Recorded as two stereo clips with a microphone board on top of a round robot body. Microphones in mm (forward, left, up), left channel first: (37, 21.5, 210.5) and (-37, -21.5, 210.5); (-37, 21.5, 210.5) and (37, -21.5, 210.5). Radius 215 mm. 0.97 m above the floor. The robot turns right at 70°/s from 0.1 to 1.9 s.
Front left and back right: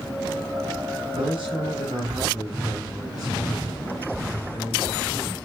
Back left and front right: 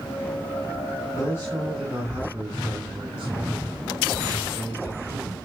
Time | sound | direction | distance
1.1 | a man speaking | 155° right | 4.5 m